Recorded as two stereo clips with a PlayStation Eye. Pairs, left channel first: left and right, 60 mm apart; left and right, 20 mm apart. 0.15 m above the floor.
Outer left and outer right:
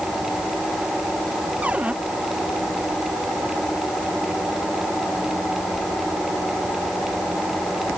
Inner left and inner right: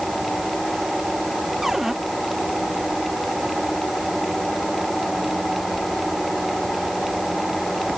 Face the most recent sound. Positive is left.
turn(degrees=-20)  # may be behind; listen again after turning